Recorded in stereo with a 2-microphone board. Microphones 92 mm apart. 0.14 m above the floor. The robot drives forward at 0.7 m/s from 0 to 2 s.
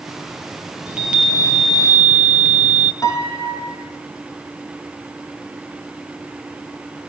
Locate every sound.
0.9 s a chime: 10° right (ahead or behind), 2.5 m; by 2.9 s 15° right (ahead or behind), 1.7 m
3.0 s a piano: 35° left (ahead or behind), 4 m